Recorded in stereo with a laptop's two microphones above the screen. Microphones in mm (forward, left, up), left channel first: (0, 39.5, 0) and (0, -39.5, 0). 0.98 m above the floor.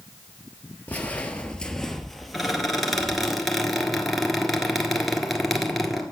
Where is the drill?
No drill in this recording.